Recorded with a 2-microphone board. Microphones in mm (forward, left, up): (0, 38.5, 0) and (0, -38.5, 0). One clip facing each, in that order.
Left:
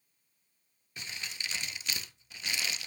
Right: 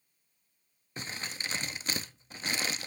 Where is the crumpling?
40° right (ahead or behind), 0.6 m.